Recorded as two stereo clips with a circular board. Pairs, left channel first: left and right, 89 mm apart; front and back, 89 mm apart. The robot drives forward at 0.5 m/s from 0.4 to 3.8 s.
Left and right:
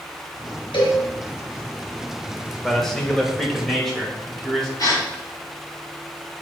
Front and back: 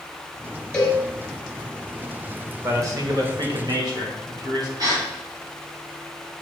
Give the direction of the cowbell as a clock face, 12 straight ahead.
10 o'clock.